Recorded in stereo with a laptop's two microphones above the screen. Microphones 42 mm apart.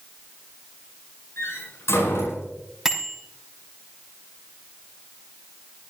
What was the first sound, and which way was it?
A door slam, 90° left.